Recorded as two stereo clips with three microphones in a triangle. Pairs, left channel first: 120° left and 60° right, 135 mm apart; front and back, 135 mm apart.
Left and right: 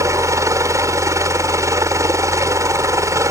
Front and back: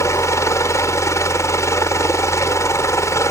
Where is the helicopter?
30° right.